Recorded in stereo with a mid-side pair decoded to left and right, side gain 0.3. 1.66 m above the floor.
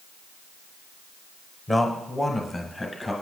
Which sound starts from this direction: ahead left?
A man speaking, at 1.7 s.